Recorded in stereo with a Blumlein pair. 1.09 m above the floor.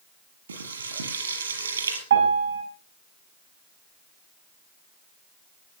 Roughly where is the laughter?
I don't hear laughter.